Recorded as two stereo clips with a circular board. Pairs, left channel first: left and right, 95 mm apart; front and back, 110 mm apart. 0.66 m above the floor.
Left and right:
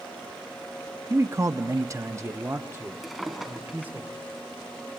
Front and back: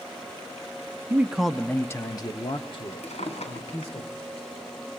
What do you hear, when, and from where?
1.1 s a man speaking: 125° right, 0.7 m; by 4.0 s 20° right, 2.0 m
3.0 s a drawer: straight ahead, 2.5 m